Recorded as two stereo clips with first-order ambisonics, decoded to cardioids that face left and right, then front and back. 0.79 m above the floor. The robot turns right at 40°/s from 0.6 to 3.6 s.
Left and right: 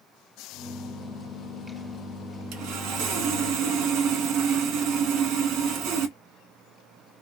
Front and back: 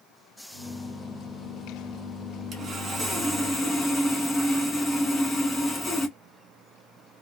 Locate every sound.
2.5 s sawing: 120° right, 1.2 m; by 6.2 s 75° right, 1.2 m